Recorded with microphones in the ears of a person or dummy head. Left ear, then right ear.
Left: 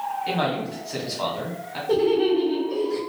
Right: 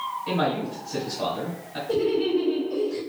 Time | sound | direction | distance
0.3 | a man speaking | 20° left (ahead or behind) | 1.2 m
1.9 | laughter | 45° left (ahead or behind) | 1.1 m